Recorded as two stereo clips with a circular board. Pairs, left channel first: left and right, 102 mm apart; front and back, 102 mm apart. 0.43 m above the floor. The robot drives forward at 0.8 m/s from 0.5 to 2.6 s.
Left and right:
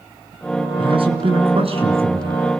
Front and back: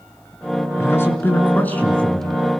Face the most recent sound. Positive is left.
turn(degrees=-85)